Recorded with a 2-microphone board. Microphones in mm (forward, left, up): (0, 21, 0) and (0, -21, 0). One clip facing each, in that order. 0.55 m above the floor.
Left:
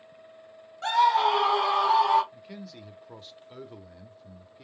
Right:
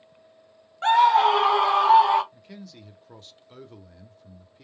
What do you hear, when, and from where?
0.8 s a scream: 30° right (ahead or behind), 0.6 m; by 2.2 s 25° right (ahead or behind), 1.6 m
2.3 s a man speaking: 10° left (ahead or behind), 0.8 m